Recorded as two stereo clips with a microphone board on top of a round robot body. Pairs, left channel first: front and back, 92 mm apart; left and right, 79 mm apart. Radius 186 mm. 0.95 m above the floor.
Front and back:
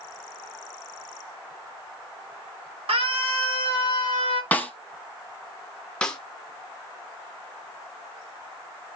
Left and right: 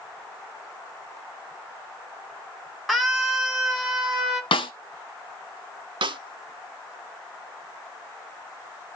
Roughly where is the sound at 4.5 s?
Left.